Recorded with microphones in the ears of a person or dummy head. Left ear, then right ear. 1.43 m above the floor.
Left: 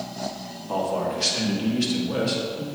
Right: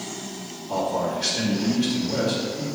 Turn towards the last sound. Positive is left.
turn(degrees=75)  # may be behind; listen again after turning